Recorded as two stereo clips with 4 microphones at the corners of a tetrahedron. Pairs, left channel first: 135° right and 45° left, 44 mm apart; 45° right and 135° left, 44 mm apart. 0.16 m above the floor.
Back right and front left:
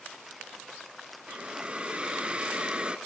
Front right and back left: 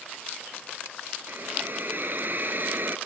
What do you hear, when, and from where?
1.3 s a hiss: 110° left, 1.3 m